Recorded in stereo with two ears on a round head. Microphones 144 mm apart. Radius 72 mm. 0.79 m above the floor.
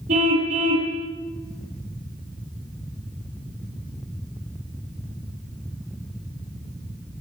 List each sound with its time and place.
0.1 s a car horn: 50° right (ahead or behind), 9 m